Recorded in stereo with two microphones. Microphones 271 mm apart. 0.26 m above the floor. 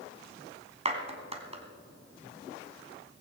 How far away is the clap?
About 2 m.